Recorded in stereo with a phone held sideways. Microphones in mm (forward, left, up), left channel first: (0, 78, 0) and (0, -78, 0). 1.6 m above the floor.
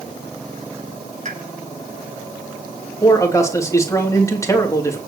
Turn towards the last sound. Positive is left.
turn(degrees=20)  # may be behind; listen again after turning